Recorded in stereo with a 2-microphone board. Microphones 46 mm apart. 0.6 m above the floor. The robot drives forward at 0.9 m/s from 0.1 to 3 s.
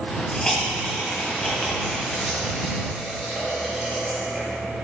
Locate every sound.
0.3 s a hiss: 15° left (ahead or behind), 1.1 m; by 4.4 s 5° left (ahead or behind), 3.5 m